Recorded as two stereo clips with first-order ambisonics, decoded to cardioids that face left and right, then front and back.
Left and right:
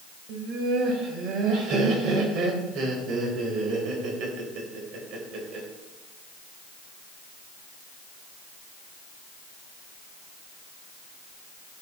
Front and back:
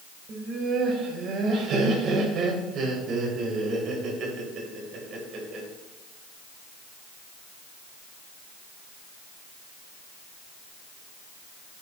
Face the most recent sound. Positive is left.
turn(degrees=-130)